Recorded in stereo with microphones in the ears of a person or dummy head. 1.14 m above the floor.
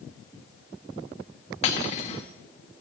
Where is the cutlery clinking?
35° left (ahead or behind), 1.0 m.